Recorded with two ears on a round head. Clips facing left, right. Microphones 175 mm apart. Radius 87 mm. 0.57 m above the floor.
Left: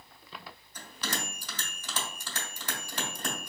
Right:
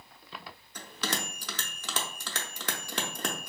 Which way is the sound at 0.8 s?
60° right (ahead or behind).